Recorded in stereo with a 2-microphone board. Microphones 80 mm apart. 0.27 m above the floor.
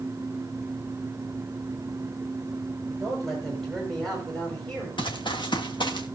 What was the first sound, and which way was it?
A man speaking, centre (ahead or behind).